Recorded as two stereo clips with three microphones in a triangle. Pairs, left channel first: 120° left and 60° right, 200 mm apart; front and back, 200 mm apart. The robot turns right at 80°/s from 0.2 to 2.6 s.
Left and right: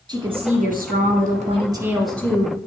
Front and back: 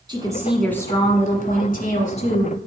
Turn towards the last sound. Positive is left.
turn(degrees=70)